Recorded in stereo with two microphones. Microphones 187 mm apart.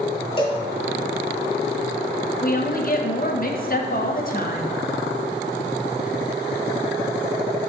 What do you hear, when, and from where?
0.4 s a cowbell: 30° left (ahead or behind), 1.4 m
2.4 s a woman speaking: 50° left (ahead or behind), 0.8 m